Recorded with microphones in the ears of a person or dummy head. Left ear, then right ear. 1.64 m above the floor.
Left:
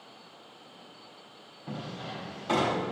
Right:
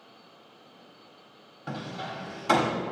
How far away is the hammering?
About 1.3 m.